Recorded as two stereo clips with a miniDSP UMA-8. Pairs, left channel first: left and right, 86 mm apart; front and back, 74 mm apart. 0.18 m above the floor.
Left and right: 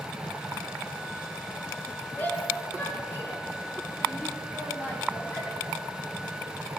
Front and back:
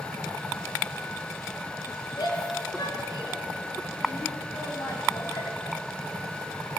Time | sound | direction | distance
2.2 | a shout | 25° left | 7.5 m